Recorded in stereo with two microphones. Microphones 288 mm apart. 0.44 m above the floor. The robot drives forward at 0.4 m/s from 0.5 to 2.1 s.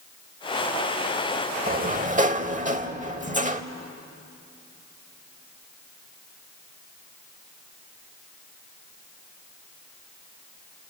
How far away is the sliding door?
About 0.7 m.